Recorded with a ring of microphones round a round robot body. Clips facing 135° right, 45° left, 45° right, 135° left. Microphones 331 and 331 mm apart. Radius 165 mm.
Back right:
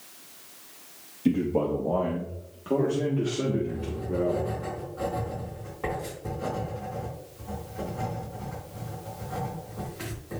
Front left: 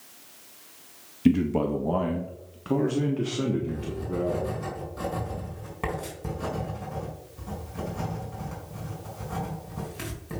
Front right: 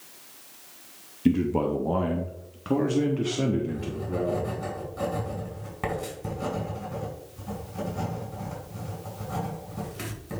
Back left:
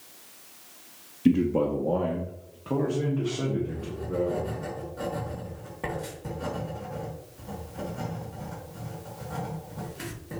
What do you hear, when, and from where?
1.2 s a man speaking: 45° left, 0.9 m; by 4.6 s 20° right, 2 m
3.7 s writing: 15° left, 4 m